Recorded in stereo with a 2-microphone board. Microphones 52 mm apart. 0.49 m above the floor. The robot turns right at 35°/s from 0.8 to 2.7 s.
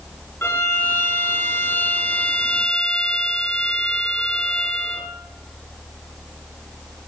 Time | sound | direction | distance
0.4 | a violin | 85° left | 1.0 m